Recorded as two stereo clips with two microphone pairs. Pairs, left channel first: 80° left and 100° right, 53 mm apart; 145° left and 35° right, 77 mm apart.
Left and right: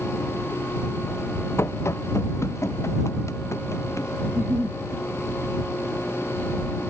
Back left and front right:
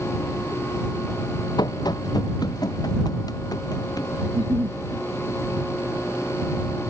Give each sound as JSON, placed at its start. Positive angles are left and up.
{"t": 1.6, "sound": "running footsteps", "azimuth_deg": 115}
{"t": 4.2, "sound": "a giggle", "azimuth_deg": -30}